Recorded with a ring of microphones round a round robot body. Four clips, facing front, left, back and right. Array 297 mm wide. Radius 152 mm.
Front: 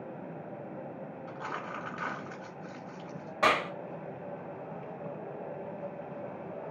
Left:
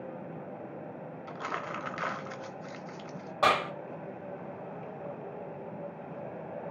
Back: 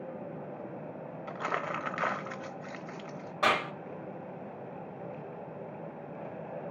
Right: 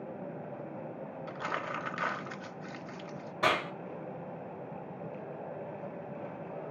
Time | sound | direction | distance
1.3 | crumpling | 170° right | 0.7 m
3.4 | a clap | 65° left | 2.0 m